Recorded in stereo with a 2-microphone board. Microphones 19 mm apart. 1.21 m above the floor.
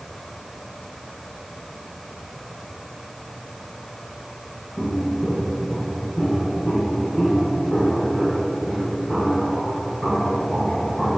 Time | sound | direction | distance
4.8 | footsteps | 60° left (ahead or behind) | 2.5 m